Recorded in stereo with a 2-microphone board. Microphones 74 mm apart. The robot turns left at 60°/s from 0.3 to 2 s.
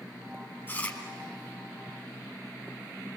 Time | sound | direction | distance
0.7 | chewing | 30° left (ahead or behind) | 3 m